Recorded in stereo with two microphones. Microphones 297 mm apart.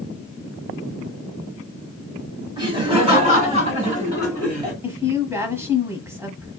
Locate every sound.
2.6 s laughter: 15° right (ahead or behind), 1.7 m; by 4.7 s 25° right (ahead or behind), 2 m
4.8 s a woman speaking: 10° right (ahead or behind), 1.1 m